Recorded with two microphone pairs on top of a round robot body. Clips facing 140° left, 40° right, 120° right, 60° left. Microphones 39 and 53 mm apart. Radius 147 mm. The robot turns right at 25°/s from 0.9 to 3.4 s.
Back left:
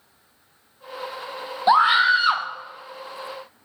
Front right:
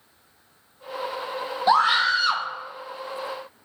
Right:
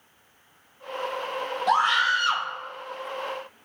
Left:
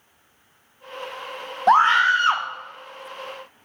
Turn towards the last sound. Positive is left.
turn(degrees=120)